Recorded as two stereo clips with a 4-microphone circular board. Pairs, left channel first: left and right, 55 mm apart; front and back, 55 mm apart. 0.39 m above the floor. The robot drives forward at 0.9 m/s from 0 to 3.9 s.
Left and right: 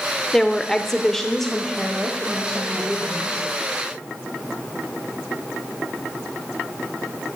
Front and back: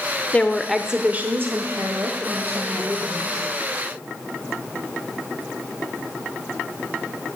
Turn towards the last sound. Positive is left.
turn(degrees=180)